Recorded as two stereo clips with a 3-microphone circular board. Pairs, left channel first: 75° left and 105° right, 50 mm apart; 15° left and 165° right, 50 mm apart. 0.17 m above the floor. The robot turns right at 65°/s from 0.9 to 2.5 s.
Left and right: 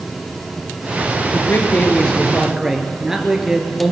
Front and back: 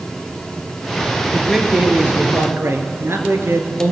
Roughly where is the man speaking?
Left.